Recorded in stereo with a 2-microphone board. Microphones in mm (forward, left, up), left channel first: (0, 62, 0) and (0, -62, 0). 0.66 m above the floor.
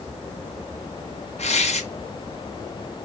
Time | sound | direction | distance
1.4 | tearing paper | 65° left (ahead or behind) | 2.5 m